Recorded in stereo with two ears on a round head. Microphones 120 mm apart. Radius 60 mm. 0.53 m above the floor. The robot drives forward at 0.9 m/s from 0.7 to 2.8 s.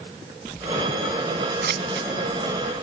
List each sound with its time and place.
1.6 s scissors: 75° right (ahead or behind), 1.6 m; by 2.1 s 85° right, 1.6 m